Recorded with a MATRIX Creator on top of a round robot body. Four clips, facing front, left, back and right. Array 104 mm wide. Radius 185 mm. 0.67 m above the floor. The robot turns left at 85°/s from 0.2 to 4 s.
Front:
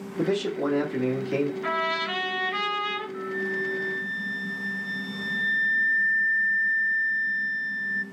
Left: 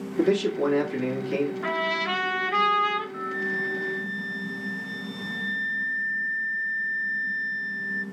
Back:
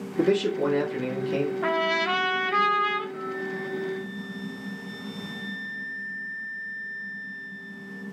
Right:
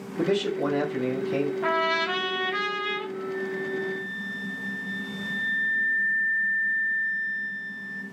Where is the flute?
90° left, 0.6 m; by 8.0 s 20° left, 0.6 m.